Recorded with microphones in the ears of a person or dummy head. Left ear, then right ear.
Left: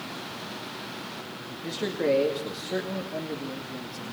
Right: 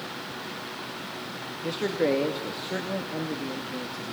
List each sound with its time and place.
1.6 s a man speaking: 15° right (ahead or behind), 2 m